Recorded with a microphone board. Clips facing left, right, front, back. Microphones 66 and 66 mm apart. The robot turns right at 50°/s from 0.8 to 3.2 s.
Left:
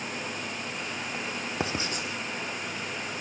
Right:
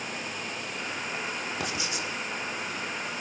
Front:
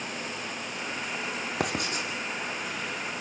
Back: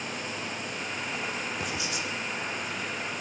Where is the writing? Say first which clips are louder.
Left 1 dB, front 3 dB; 25° left, 3.5 m; by 2.1 s 50° left, 3.5 m.